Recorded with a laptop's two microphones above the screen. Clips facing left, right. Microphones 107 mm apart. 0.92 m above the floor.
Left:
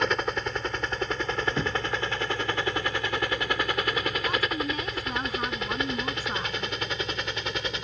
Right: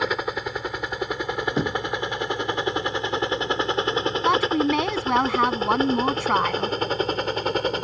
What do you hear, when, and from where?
0.0 s a helicopter: 5° right (ahead or behind); by 7.8 s 45° right (ahead or behind)
1.6 s knocking: 35° right (ahead or behind)
4.2 s a woman speaking: 80° right